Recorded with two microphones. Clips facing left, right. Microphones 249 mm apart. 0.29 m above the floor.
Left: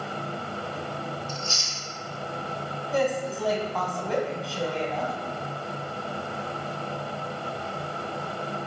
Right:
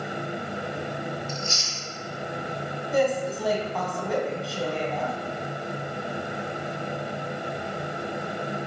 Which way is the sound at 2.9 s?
Centre (ahead or behind).